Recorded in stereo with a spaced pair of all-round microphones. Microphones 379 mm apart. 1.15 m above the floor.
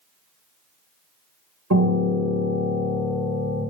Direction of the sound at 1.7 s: 45° right (ahead or behind).